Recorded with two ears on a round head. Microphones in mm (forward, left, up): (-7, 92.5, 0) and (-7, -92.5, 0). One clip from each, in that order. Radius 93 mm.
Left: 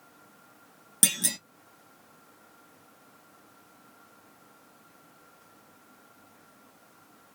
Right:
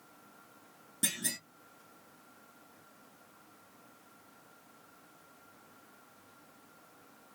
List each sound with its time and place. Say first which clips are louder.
1.0 s a clunk: left 8 dB; 75° left (ahead or behind), 1.5 m